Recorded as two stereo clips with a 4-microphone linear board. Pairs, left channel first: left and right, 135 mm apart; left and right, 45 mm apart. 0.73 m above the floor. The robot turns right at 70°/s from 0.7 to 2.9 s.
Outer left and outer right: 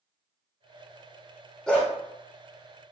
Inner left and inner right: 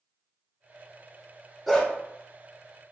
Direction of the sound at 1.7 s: 5° left (ahead or behind).